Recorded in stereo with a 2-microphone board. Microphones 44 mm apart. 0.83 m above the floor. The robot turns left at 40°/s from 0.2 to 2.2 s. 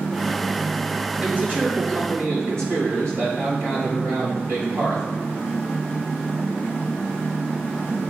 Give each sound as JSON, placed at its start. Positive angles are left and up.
{"t": 1.2, "sound": "a man speaking", "azimuth_deg": -30, "distance_m": 4.0}